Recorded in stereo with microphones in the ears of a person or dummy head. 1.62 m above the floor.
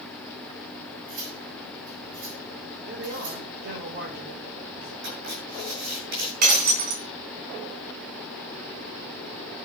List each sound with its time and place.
1.1 s cutlery clinking: 75° right (ahead or behind), 8.5 m
2.9 s a man speaking: 50° right (ahead or behind), 5 m
5.0 s writing: 55° right (ahead or behind), 8 m
6.4 s breaking glass: 45° right (ahead or behind), 3.5 m